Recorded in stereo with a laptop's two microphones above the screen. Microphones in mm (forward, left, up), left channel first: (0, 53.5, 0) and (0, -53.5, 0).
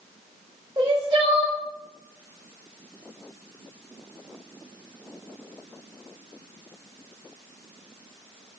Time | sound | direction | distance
0.8 | crying | 45° right (ahead or behind) | 1.8 m